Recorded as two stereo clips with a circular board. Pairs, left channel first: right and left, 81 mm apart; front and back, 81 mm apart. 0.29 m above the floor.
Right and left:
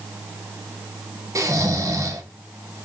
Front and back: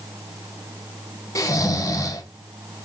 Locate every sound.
1.4 s snoring: 45° left, 0.5 m